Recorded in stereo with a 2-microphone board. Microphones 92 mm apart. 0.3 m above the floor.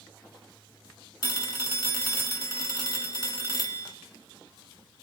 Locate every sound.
1.2 s a phone ringing: 45° left (ahead or behind), 0.9 m